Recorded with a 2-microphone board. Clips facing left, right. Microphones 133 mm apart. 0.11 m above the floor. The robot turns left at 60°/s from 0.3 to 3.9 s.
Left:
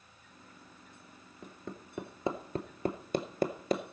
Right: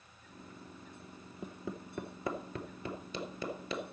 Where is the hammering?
20° right (ahead or behind), 0.9 m; by 3.8 s 45° left (ahead or behind), 0.9 m.